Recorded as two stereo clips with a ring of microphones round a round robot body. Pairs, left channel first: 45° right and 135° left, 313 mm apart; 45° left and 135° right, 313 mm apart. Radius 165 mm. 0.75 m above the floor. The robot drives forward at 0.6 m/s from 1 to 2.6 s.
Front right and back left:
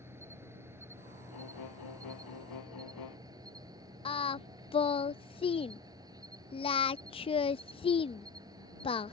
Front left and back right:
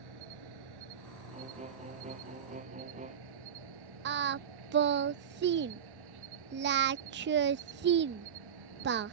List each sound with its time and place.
0.0 s an insect: 145° right
1.3 s a violin: 65° right
4.0 s singing: 110° right